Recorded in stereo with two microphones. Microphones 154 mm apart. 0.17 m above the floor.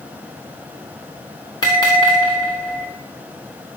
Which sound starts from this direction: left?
A bell, at 1.6 s.